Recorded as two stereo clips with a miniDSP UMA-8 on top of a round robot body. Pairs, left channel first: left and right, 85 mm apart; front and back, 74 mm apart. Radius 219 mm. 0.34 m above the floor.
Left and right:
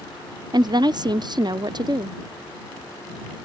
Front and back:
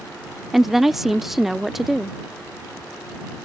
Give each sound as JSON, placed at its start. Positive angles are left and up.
{"t": 0.5, "sound": "a woman speaking", "azimuth_deg": -95}